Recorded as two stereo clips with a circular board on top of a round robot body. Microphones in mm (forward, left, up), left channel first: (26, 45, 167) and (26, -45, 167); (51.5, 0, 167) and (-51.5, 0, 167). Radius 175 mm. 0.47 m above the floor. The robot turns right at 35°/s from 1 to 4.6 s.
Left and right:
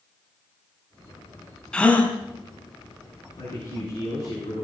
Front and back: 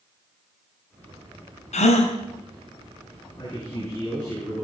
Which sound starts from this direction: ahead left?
A man speaking, at 3.4 s.